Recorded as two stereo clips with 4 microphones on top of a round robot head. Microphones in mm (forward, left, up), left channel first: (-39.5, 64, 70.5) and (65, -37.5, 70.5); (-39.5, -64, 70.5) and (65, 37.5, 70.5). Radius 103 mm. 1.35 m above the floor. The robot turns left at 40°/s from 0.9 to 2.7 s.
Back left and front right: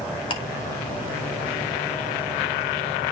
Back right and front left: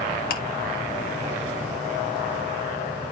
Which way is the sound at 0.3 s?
165° right.